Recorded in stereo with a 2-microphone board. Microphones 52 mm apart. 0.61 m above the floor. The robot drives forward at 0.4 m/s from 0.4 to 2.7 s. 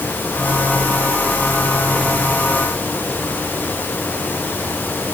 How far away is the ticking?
No ticking in this recording.